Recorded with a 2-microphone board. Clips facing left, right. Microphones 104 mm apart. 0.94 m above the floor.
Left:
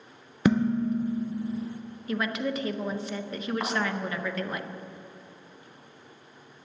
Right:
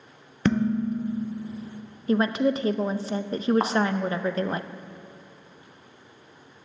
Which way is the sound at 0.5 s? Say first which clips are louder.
Even; 10° left (ahead or behind).